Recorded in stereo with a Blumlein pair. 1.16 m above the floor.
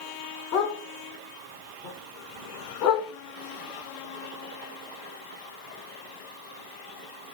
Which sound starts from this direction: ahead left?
A dog barking, at 0.5 s.